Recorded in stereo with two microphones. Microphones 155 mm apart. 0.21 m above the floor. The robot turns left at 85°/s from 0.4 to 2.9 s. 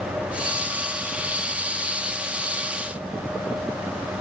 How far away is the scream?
I don't hear a scream.